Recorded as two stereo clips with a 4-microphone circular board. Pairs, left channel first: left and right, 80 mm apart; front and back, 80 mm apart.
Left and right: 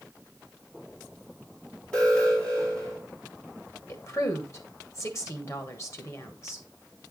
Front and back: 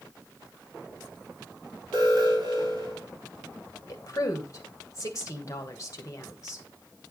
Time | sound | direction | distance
1.9 | an alarm | 160° left | 3.5 m
3.9 | a woman speaking | 45° left | 1.3 m